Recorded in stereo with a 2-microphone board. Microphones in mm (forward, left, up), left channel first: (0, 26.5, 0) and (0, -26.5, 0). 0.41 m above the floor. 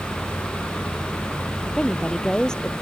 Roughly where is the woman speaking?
Centre.